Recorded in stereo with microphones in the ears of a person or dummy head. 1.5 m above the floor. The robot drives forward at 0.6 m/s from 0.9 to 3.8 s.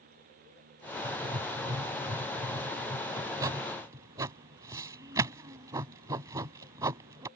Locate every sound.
1.0 s writing: 30° right (ahead or behind); by 7.3 s 20° right (ahead or behind)